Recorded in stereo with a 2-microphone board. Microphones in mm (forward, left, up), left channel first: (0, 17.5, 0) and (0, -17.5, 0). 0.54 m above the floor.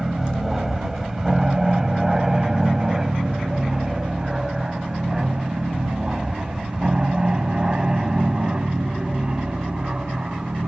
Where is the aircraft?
10° right (ahead or behind); by 10.7 s 25° right (ahead or behind).